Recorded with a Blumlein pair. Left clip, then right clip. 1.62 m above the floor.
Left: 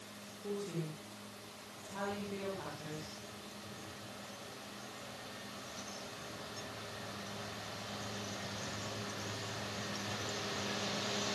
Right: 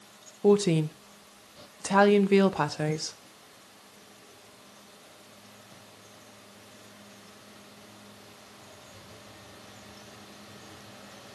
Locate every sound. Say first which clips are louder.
0.4 s a woman speaking: right 19 dB; 50° right, 1.4 m